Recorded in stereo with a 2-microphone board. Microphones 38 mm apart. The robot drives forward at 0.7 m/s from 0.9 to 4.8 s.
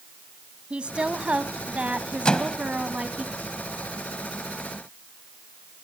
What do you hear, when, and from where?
0.7 s a woman speaking: 30° right (ahead or behind), 1.4 m
2.2 s a microwave: 25° left (ahead or behind), 0.9 m